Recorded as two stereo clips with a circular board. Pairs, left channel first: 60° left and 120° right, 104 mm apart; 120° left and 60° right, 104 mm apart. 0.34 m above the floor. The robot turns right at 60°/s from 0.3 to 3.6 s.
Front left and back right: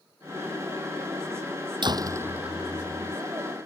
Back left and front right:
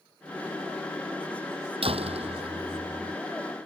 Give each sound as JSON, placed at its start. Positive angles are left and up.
{"t": 1.8, "sound": "a door slam", "azimuth_deg": -80}